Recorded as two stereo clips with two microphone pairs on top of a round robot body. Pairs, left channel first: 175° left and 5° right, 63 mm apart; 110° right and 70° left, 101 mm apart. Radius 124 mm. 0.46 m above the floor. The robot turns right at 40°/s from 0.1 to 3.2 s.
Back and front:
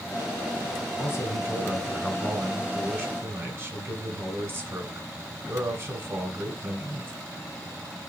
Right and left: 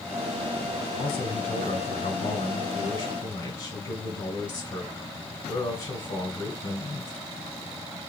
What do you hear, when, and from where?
1.0 s a man speaking: 150° right, 2.5 m; by 7.1 s 60° right, 2.5 m